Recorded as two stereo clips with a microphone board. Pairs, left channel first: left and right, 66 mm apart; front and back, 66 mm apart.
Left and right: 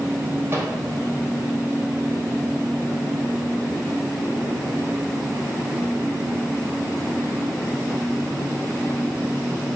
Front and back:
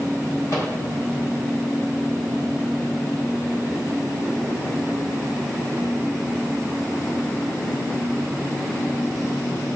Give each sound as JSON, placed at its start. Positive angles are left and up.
{"t": 0.5, "sound": "a microwave", "azimuth_deg": -35, "distance_m": 3.0}